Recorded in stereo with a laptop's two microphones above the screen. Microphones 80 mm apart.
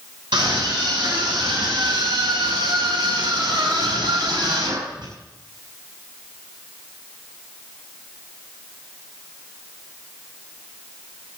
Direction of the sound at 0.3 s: 85° right.